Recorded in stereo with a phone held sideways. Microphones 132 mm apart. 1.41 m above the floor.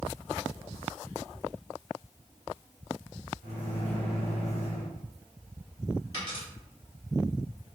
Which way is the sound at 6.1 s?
40° left (ahead or behind).